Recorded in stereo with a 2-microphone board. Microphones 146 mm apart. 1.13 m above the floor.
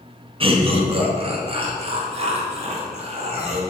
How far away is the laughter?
About 1.8 m.